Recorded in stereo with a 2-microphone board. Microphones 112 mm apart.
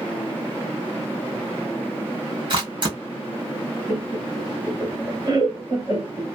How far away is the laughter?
About 1.4 m.